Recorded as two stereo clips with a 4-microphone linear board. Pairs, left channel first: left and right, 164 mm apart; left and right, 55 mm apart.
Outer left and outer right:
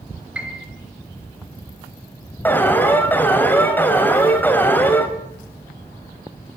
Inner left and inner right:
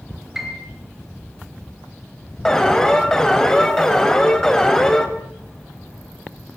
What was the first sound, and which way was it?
A piano, 5° right (ahead or behind).